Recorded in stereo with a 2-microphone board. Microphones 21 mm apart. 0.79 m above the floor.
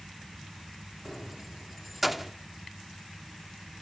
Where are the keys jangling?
10° right (ahead or behind), 1.0 m.